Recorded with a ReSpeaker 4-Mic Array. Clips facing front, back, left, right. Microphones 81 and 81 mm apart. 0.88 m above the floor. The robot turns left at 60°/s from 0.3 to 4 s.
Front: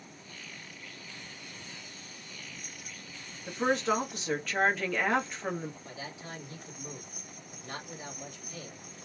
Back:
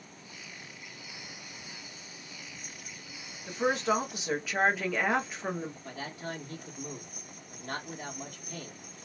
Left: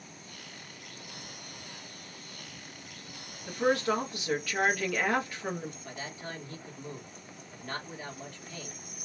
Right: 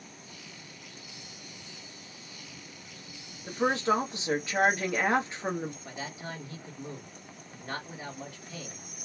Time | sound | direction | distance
3.5 | a woman speaking | 75° right | 0.9 m
5.8 | a man speaking | 165° right | 1.3 m